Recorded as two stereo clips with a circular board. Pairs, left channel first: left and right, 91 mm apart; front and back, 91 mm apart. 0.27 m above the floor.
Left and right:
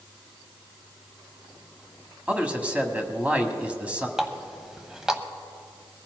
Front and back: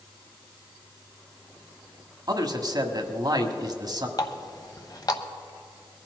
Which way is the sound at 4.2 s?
10° right.